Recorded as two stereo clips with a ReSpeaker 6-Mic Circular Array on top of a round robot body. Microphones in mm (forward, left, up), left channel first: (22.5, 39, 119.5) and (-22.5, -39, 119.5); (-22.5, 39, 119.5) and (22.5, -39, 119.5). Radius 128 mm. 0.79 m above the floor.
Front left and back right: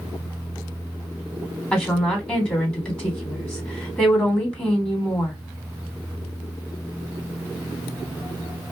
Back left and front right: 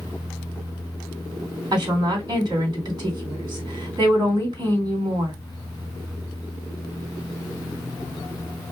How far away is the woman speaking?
About 2.5 m.